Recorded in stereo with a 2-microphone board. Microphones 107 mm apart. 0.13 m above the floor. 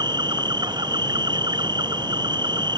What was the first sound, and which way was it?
An insect, 40° right (ahead or behind).